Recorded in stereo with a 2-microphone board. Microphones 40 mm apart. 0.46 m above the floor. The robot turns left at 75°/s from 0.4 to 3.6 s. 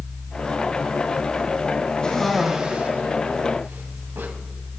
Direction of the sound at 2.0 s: 25° left (ahead or behind).